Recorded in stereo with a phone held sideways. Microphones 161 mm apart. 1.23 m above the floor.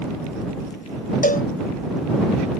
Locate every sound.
1.2 s a cowbell: 60° left (ahead or behind)